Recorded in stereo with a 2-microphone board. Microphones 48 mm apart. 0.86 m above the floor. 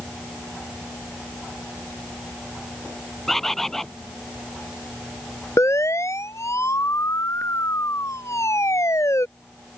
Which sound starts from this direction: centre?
A bird, at 3.3 s.